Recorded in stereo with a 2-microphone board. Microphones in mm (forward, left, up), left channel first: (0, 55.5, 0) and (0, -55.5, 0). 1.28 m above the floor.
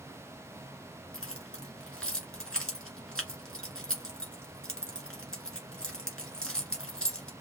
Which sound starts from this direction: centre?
Keys jangling, at 1.1 s.